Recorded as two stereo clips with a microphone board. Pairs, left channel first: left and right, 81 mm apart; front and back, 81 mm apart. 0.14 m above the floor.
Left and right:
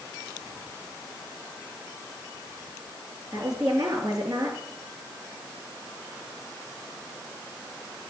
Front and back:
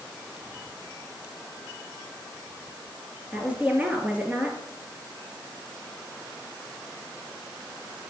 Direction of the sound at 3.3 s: 110° right.